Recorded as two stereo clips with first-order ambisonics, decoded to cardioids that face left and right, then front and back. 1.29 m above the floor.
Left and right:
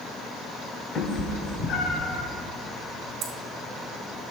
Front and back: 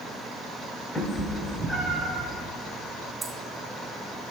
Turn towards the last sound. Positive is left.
turn(degrees=-100)